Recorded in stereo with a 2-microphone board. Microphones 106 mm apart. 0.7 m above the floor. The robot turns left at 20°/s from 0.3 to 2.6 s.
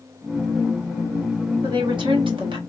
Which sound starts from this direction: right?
A woman speaking, at 1.6 s.